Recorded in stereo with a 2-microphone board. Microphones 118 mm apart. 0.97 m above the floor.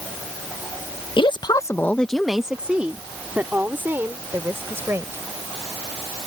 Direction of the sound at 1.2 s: 45° left (ahead or behind).